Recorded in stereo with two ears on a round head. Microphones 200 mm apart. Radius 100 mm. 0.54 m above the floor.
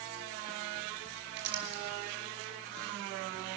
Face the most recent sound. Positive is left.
turn(degrees=-55)  # may be behind; listen again after turning